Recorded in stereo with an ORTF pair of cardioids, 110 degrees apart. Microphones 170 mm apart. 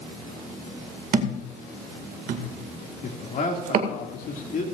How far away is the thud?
About 2 m.